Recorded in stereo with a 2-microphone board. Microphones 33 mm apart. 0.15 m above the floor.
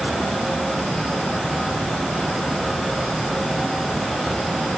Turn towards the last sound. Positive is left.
No sound to turn to.